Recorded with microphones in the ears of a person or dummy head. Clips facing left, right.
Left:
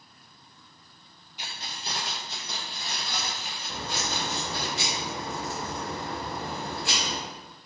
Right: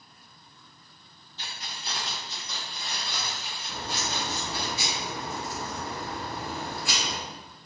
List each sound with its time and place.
1.4 s keys jangling: 10° left (ahead or behind), 0.8 m; by 4.7 s 70° left (ahead or behind), 3 m
3.7 s a crack: 60° left (ahead or behind), 1.9 m